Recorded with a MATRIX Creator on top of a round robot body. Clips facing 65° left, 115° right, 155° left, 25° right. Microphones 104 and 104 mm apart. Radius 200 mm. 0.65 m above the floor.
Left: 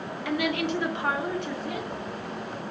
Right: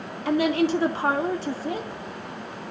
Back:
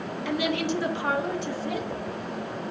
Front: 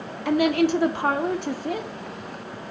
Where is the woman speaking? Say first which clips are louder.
Right 6 dB, front 8 dB; 60° right, 2.5 m.